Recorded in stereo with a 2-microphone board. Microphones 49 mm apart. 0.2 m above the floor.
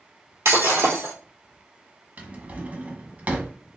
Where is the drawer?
35° right (ahead or behind), 0.9 m.